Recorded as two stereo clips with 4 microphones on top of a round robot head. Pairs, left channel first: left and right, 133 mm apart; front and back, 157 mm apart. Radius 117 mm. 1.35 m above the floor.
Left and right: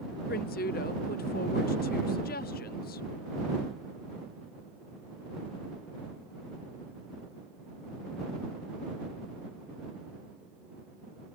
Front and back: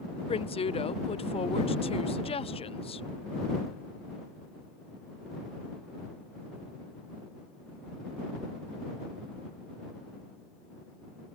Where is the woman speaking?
55° left.